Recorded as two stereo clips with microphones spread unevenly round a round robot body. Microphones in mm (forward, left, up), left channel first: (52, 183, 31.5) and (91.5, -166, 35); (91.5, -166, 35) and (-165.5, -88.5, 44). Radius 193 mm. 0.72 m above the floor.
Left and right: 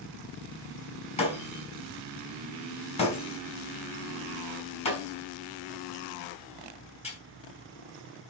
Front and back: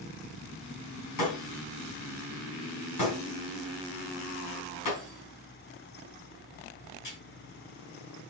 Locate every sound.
1.2 s breaking glass: 25° left, 4 m